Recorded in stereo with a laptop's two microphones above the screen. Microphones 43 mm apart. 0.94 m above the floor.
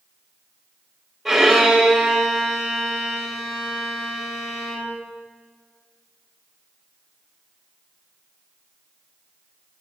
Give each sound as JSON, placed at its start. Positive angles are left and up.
{"t": 1.2, "sound": "a violin", "side_deg": 0, "distance_m": 1.7}